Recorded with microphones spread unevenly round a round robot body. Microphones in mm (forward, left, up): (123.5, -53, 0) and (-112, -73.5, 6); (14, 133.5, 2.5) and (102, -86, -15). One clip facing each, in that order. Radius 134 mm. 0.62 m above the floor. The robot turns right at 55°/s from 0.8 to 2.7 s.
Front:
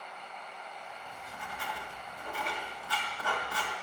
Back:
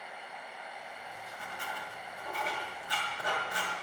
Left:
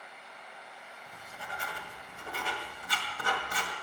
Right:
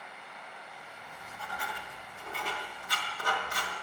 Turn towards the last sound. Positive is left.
turn(degrees=110)